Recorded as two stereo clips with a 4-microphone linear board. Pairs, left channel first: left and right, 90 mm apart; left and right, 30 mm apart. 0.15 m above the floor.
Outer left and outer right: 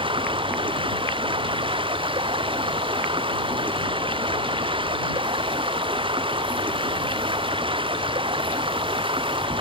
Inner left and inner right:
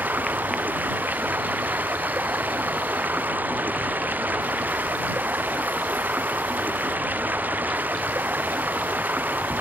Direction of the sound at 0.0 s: 85° right.